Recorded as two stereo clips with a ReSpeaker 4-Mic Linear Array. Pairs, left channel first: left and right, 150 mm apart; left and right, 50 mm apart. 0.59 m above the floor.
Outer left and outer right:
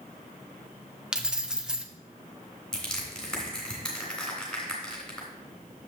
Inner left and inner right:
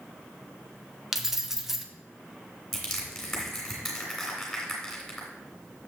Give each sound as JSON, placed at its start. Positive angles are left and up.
{"t": 1.1, "sound": "keys jangling", "side_deg": -5, "distance_m": 0.6}
{"t": 2.7, "sound": "crushing", "side_deg": 5, "distance_m": 2.5}